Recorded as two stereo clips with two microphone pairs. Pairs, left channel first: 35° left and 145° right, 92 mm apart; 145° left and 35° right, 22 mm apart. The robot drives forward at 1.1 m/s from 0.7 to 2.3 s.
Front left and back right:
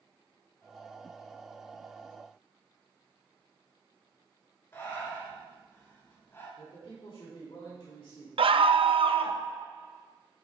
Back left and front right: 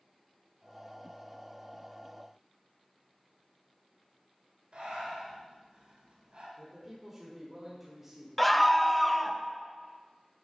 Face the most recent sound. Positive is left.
turn(degrees=-130)